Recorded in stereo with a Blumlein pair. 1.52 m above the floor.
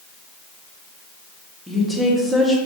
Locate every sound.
1.7 s a woman speaking: 5° left, 1.2 m